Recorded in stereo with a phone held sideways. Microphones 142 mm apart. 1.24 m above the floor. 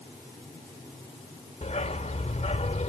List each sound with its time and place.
1.6 s a dog barking: 50° left (ahead or behind)